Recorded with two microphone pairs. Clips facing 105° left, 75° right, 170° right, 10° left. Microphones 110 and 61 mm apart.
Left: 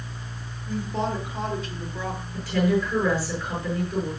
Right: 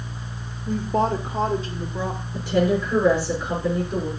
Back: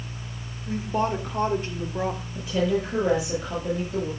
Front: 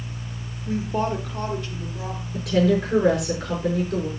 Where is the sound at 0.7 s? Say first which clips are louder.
Right 6 dB, front 1 dB; 60° right, 1.5 m; by 2.2 s 155° right, 1.7 m.